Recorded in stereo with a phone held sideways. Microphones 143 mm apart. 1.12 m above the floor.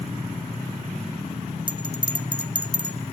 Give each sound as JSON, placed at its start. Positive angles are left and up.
{"t": 1.7, "sound": "a bell", "side_deg": -35, "distance_m": 0.9}